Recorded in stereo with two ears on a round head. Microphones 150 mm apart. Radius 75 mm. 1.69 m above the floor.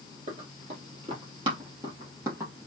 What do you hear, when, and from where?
0.3 s running footsteps: 45° right (ahead or behind), 2.5 m; by 2.7 s 15° right (ahead or behind), 2.5 m